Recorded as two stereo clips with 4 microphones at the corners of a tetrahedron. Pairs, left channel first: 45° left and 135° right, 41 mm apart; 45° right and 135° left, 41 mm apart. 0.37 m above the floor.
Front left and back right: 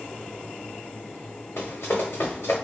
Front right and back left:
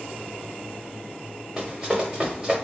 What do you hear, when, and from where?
1.6 s running footsteps: 55° left, 1.3 m